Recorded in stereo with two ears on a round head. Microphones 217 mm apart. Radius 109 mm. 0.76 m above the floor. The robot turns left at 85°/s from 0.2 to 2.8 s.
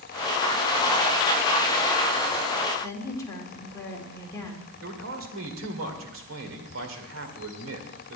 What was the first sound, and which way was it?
A woman speaking, 15° left (ahead or behind).